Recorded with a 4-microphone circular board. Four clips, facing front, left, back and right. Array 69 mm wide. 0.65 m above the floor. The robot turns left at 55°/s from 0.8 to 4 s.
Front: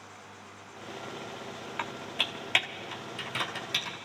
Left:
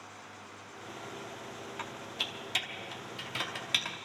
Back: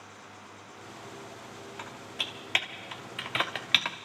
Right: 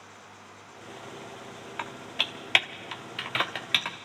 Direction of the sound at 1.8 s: 40° right.